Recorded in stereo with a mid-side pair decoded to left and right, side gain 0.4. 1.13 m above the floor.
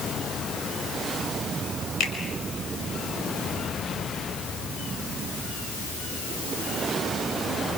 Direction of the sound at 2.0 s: 70° left.